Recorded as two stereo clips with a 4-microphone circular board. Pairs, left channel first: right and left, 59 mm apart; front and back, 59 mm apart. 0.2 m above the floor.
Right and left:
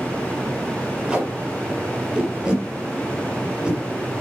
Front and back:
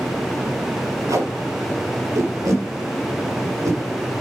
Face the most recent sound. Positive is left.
turn(degrees=165)